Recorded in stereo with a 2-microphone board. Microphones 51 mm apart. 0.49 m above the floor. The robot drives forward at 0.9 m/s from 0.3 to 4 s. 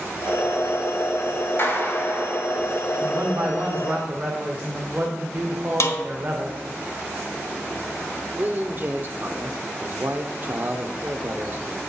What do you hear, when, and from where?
1.6 s a clap: 45° left (ahead or behind), 2.5 m; by 2.5 s 35° left (ahead or behind), 3 m
3.0 s a man speaking: 45° right (ahead or behind), 1.3 m; by 6.6 s 40° right (ahead or behind), 1.5 m
5.8 s a snare drum: 65° left (ahead or behind), 1.2 m
8.4 s a man speaking: 40° right (ahead or behind), 0.9 m